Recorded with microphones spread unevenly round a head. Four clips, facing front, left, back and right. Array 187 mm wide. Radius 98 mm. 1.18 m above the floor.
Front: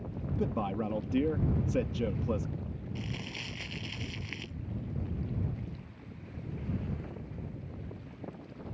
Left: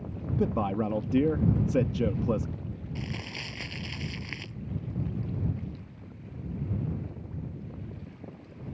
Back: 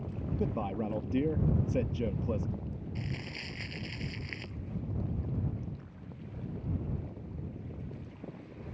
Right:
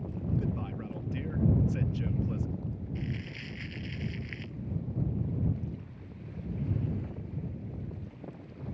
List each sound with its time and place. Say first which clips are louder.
0.4 s a man speaking: left 9 dB, front 1 dB; 85° left
3.0 s crumpling: left 1 dB, even; 80° left